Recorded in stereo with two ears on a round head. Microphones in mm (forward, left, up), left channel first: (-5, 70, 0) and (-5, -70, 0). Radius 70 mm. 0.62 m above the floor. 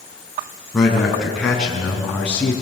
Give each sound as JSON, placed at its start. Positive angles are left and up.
{"t": 0.7, "sound": "a man speaking", "side_deg": 0, "distance_m": 7.0}